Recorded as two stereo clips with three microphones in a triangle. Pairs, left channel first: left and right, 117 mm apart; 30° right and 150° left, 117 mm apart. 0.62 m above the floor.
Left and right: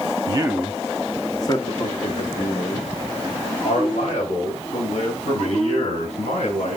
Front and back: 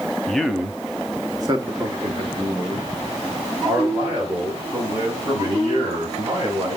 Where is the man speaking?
115° right, 1.0 m; by 6.8 s 95° left, 6 m.